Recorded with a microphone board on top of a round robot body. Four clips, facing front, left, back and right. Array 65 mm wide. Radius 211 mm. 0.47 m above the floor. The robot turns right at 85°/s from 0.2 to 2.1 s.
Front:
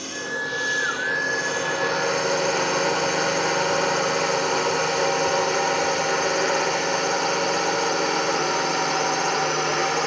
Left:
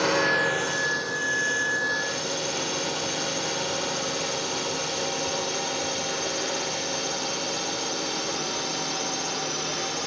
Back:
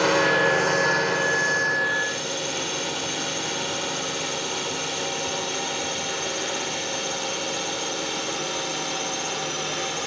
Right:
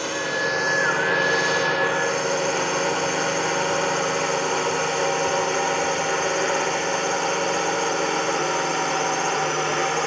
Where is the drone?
165° left; by 10.1 s 40° right.